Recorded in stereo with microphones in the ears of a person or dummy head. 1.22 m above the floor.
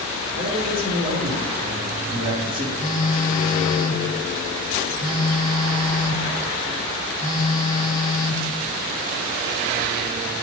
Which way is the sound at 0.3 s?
45° right (ahead or behind).